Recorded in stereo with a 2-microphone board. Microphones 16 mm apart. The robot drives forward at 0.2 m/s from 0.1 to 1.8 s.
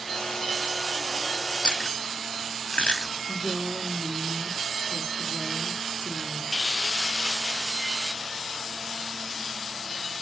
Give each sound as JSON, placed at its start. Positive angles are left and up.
{"t": 1.6, "sound": "chewing", "side_deg": 65, "distance_m": 0.6}
{"t": 3.3, "sound": "a woman speaking", "side_deg": -45, "distance_m": 1.4}